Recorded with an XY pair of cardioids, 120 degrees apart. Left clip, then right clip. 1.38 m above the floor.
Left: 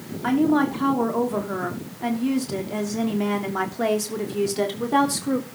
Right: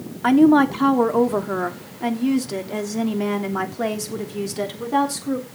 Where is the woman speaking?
40° right, 3 m; by 5.5 s 10° left, 3.5 m.